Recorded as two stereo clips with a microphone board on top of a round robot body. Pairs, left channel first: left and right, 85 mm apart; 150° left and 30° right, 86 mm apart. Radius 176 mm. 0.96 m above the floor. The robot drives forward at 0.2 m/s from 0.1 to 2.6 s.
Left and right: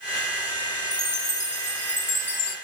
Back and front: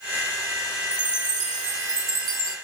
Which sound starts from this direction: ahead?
A chime, at 0.9 s.